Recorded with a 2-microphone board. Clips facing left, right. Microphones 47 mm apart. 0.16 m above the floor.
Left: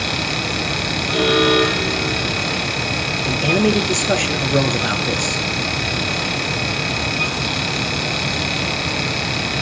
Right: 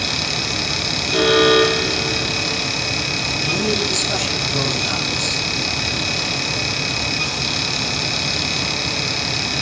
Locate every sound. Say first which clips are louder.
1.1 s an alarm: right 2 dB; 15° right (ahead or behind), 5.5 m
3.2 s a man speaking: left 6 dB; 50° left (ahead or behind), 3 m